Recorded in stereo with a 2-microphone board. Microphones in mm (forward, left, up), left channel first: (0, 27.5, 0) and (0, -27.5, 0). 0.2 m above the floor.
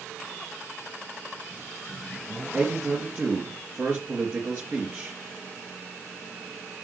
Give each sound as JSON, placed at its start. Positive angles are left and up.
{"t": 2.5, "sound": "a man speaking", "side_deg": -40, "distance_m": 3.5}